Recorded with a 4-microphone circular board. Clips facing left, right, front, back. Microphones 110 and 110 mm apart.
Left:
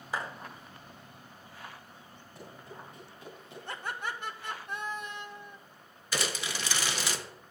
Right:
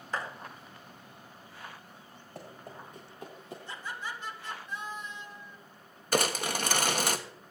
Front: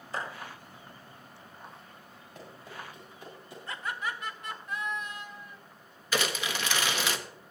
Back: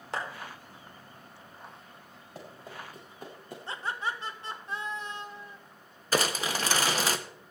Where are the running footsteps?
125° right, 7.5 m; by 3.6 s 140° right, 6 m.